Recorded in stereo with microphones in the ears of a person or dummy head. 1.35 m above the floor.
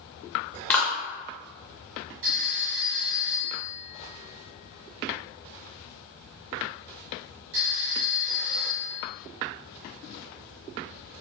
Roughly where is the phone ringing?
Right.